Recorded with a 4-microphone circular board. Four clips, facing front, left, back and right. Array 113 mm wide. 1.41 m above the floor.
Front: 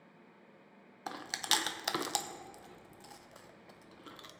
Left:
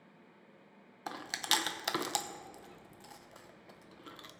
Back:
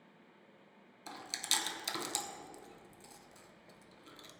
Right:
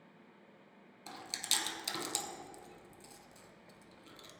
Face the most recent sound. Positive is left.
turn(degrees=40)